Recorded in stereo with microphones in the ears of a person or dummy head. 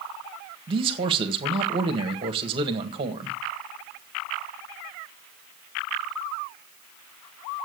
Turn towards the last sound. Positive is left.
turn(degrees=-30)  # may be behind; listen again after turning